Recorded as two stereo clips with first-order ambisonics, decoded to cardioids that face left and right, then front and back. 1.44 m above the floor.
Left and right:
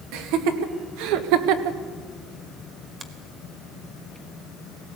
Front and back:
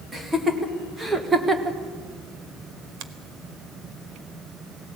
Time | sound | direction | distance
0.1 | laughter | 100° right | 2.5 m
3.0 | a finger snap | 165° right | 1.1 m